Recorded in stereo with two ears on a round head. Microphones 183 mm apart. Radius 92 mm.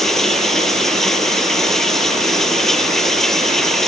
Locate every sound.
0.0 s running water: centre (ahead or behind)